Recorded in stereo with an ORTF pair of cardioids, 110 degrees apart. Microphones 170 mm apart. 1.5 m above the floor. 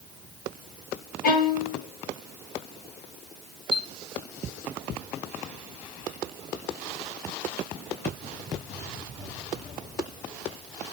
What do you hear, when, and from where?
1.2 s a violin: 60° left, 1.6 m
3.7 s a chime: 30° left, 1.0 m